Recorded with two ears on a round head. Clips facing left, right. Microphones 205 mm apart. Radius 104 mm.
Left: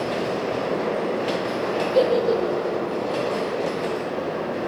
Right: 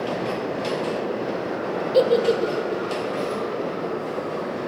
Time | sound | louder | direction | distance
1.9 | a giggle | right 1 dB | 40° right (ahead or behind) | 1.2 m